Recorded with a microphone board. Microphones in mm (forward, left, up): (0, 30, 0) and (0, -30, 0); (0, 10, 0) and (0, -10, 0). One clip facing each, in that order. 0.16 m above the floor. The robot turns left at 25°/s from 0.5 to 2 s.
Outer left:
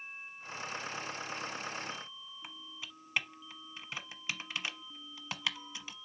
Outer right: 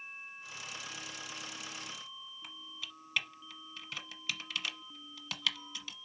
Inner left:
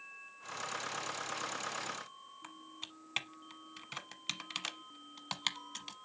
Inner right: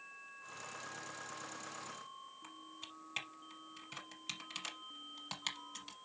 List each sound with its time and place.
2.4 s typing on a keyboard: 25° left (ahead or behind), 1.0 m